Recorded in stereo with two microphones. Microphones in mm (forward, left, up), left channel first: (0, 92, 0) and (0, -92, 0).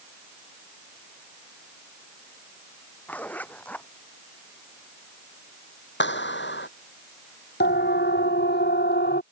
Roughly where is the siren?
Left.